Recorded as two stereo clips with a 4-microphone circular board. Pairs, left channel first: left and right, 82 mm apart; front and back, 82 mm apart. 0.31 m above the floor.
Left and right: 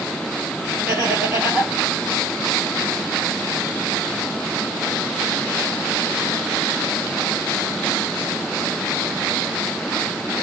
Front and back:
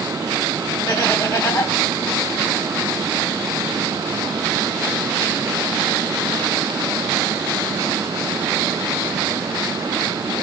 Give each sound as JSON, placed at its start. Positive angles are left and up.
{"t": 0.9, "sound": "laughter", "azimuth_deg": -30, "distance_m": 2.0}